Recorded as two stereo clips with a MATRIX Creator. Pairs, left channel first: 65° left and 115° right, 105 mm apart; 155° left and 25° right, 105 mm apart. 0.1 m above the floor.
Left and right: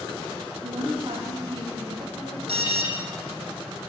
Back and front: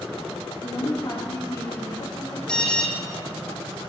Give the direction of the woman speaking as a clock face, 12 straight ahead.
5 o'clock.